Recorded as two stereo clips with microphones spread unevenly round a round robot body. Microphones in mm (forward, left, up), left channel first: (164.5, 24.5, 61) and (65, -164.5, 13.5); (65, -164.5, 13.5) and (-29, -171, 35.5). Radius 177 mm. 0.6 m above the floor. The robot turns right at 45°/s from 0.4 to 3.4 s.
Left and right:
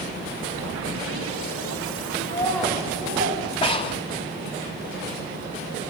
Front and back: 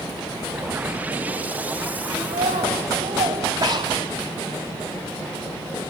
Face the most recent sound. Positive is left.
turn(degrees=135)